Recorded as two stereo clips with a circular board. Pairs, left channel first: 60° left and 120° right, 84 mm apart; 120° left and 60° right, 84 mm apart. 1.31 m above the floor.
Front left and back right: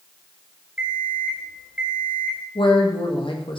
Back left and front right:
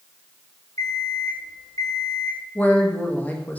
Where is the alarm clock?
170° left, 3 m.